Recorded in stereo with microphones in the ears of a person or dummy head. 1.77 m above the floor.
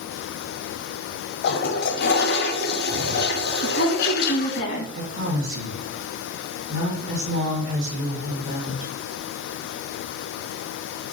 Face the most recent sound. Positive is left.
turn(degrees=-75)  # may be behind; listen again after turning